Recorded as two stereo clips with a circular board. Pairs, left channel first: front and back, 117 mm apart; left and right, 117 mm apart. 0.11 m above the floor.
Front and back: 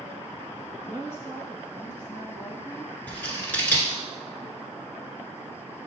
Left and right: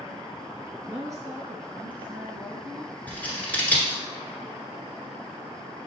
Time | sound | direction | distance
0.9 | a woman speaking | 65° right | 1.3 m
3.1 | scissors | 45° left | 1.2 m